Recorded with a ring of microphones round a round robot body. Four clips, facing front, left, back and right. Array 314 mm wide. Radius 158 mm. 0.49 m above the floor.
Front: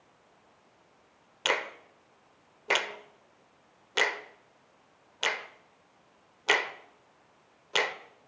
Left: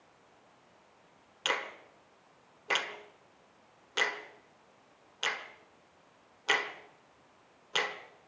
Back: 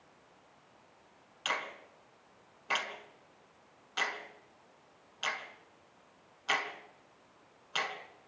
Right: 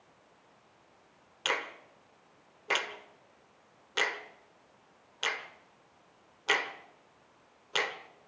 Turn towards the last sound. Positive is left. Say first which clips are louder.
# even, front 6 dB
turn(degrees=0)